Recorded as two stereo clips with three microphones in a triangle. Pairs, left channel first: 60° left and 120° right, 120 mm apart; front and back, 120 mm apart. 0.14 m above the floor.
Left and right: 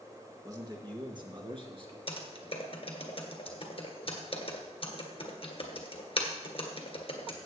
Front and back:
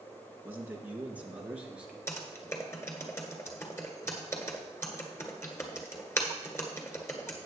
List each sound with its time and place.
0.4 s a man speaking: 130° right, 1.5 m; by 2.0 s 100° right, 2 m
2.1 s typing on a keyboard: 60° left, 1.6 m